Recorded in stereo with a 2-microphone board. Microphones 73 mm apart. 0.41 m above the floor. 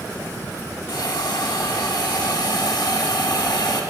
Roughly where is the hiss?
Left.